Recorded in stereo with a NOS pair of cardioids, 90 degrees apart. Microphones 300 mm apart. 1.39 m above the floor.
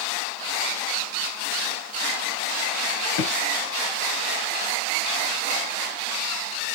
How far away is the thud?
About 3.5 m.